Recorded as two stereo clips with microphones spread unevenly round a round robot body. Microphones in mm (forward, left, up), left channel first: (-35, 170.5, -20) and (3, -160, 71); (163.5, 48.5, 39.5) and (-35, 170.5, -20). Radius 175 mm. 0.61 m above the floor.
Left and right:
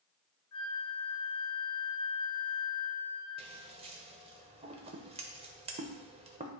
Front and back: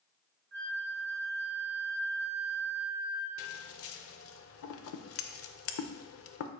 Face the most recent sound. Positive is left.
turn(degrees=-15)